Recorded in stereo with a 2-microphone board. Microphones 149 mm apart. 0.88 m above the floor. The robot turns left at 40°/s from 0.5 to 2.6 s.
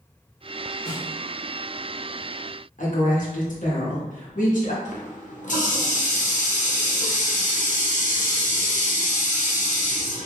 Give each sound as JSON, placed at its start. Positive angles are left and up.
{"t": 0.8, "sound": "a snare drum", "side_deg": -40, "distance_m": 1.6}
{"t": 2.8, "sound": "a woman speaking", "side_deg": 60, "distance_m": 1.1}
{"t": 4.8, "sound": "a running tap", "side_deg": 55, "distance_m": 0.7}